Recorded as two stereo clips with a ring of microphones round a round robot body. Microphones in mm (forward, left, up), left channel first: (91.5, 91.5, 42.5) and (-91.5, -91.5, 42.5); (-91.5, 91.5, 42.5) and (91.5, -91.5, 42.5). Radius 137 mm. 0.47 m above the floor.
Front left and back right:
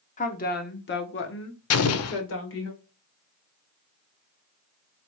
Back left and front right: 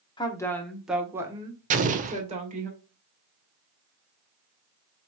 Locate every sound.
0.2 s a woman speaking: 80° left, 0.9 m; by 2.7 s 15° left, 1.7 m
1.7 s an explosion: 15° left, 0.6 m